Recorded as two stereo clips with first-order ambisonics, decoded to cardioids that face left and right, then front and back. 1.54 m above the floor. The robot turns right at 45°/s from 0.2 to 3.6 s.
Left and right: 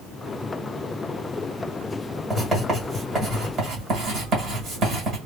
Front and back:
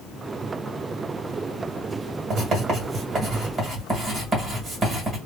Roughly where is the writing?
Behind.